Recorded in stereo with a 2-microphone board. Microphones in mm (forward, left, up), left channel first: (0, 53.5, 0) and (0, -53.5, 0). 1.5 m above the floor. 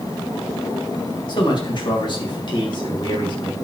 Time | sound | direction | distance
1.3 | a man speaking | 45° left (ahead or behind) | 2.5 m